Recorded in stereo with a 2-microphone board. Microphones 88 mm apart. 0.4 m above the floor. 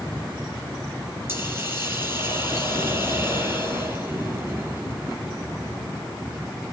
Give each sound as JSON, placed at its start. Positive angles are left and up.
{"t": 1.3, "sound": "a hiss", "side_deg": -30, "distance_m": 6.5}